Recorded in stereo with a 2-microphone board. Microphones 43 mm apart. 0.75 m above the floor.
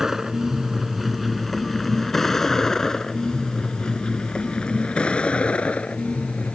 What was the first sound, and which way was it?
A vehicle, 10° right (ahead or behind).